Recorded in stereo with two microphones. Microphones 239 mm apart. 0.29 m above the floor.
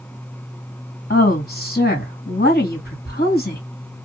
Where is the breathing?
I don't hear breathing.